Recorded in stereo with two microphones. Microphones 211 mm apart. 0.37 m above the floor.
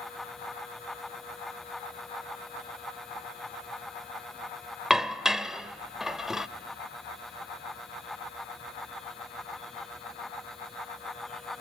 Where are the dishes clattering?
5° right (ahead or behind), 0.6 m.